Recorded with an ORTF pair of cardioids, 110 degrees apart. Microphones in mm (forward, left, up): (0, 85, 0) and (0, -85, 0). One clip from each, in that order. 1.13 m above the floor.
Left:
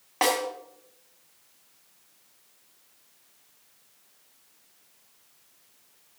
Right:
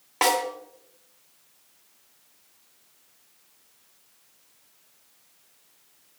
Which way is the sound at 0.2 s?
5° right.